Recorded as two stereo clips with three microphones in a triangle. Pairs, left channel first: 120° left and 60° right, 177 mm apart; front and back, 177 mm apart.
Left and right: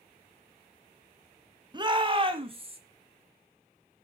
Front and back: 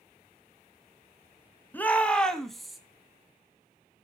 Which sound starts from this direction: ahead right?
A shout, at 1.7 s.